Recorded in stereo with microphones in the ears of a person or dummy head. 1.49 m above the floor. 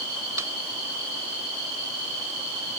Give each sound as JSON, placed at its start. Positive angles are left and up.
{"t": 0.4, "sound": "a snare drum", "side_deg": -20}